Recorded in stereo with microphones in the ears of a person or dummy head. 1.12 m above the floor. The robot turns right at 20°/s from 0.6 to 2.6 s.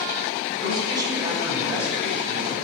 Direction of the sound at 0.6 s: 30° right.